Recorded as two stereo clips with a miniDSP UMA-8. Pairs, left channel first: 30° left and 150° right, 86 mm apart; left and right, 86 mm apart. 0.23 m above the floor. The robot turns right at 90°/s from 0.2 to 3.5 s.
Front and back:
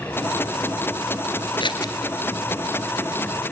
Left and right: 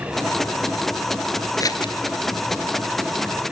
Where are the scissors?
40° left, 1.7 m; by 1.9 s 70° left, 1.7 m.